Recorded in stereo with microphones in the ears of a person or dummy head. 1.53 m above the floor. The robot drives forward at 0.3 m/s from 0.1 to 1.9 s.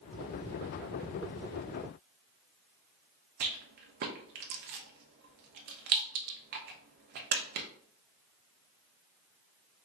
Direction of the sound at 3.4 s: 40° right (ahead or behind).